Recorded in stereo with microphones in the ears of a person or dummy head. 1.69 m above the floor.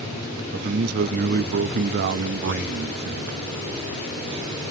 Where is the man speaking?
50° right (ahead or behind), 0.6 m.